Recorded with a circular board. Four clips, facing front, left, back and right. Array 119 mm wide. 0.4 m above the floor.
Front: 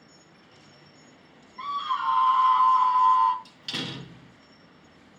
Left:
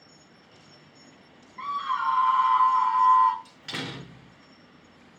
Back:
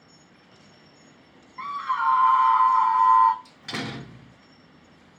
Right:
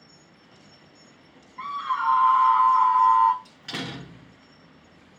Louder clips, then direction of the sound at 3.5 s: Right 2 dB, back 3 dB; 175° left.